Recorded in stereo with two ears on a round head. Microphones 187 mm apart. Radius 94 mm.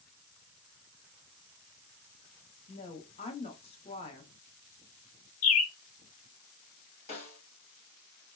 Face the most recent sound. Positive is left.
turn(degrees=30)  # may be behind; listen again after turning